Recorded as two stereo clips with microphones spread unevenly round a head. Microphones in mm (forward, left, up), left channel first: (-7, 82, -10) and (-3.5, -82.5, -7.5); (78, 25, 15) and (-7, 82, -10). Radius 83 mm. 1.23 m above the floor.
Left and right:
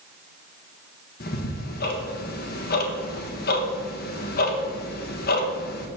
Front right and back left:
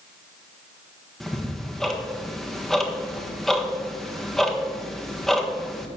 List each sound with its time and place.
1.2 s ticking: 55° left, 1.4 m